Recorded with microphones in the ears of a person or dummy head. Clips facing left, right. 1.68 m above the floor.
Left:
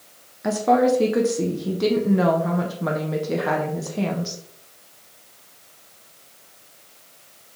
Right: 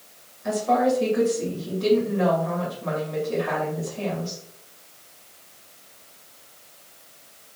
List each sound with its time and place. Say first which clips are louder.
0.4 s a woman speaking: left 3 dB; 70° left (ahead or behind), 1.4 m